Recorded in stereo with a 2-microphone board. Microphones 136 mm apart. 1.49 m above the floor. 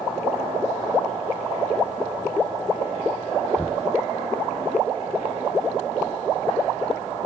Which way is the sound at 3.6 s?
10° left (ahead or behind).